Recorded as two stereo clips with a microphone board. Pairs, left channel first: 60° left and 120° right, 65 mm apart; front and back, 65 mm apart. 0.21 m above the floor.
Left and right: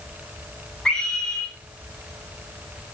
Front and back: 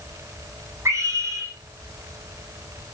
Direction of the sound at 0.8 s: 140° left.